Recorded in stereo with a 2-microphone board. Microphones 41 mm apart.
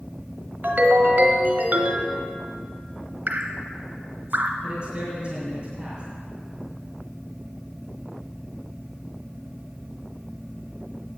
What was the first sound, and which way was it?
A ringtone, 55° right (ahead or behind).